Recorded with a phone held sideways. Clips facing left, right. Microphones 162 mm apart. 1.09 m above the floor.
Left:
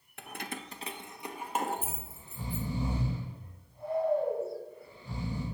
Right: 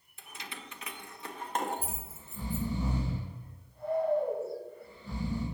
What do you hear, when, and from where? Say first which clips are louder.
0.2 s keys jangling: left 6 dB; 70° left (ahead or behind), 0.7 m; by 2.7 s 5° right (ahead or behind), 1.9 m
1.8 s snoring: even; 10° left (ahead or behind), 5 m